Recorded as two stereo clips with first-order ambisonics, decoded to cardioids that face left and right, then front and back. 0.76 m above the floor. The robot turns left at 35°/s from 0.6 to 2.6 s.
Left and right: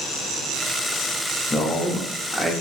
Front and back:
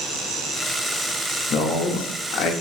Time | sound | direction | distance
1.5 | a man speaking | 25° left | 0.6 m